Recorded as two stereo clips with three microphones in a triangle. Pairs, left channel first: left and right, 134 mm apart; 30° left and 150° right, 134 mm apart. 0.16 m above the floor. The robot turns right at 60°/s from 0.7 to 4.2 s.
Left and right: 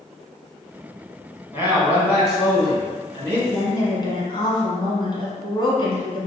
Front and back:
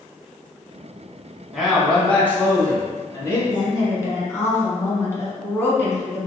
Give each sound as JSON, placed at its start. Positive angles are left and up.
{"t": 1.5, "sound": "a man speaking", "azimuth_deg": -65, "distance_m": 1.0}
{"t": 3.5, "sound": "a woman speaking", "azimuth_deg": 45, "distance_m": 1.2}